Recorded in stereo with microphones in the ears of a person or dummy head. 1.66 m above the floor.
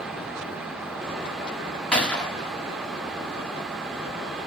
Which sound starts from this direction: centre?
A gunshot, at 1.9 s.